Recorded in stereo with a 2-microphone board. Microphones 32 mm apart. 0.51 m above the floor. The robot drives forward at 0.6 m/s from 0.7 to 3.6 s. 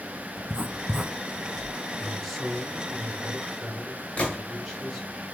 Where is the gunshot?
35° left (ahead or behind), 1.6 m.